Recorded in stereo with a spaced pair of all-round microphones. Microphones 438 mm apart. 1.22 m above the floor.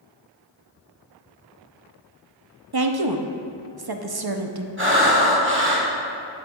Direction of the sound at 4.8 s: 25° right (ahead or behind).